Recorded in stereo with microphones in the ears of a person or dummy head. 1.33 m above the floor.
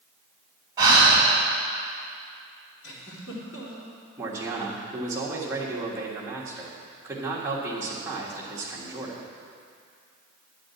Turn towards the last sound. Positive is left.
turn(degrees=-15)  # may be behind; listen again after turning